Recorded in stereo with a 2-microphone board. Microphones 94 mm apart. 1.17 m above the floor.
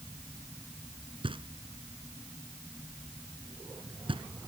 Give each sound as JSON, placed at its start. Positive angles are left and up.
{"t": 1.2, "sound": "knocking", "side_deg": -70}